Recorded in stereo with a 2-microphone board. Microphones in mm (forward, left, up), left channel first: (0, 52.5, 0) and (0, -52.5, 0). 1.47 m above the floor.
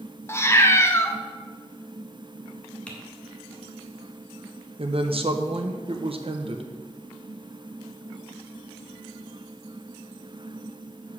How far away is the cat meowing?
About 0.7 m.